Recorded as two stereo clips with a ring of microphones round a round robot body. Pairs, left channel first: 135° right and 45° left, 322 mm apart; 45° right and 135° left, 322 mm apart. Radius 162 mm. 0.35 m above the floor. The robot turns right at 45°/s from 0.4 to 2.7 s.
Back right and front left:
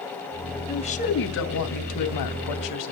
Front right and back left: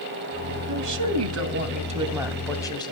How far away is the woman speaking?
About 2.5 m.